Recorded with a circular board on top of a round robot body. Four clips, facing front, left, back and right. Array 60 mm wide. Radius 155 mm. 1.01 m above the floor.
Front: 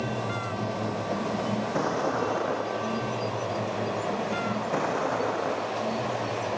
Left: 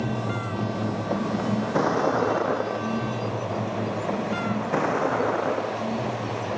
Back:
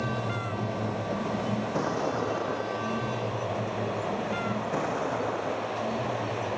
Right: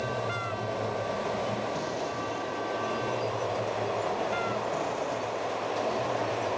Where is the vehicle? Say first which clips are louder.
Left 3 dB, front 1 dB; 80° left; by 6.6 s 75° left.